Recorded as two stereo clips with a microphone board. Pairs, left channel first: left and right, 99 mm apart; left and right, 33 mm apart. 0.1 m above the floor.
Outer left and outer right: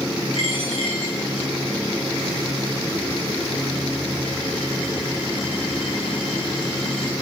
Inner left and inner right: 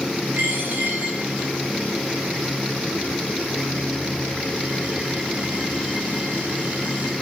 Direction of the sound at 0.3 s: 75° right (ahead or behind).